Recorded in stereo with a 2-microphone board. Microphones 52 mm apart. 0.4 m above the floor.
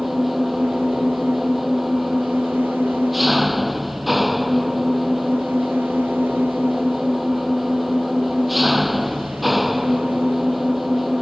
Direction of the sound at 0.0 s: 5° right (ahead or behind).